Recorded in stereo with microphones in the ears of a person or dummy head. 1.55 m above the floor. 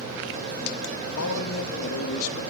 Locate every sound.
1.2 s a man speaking: 80° left, 2 m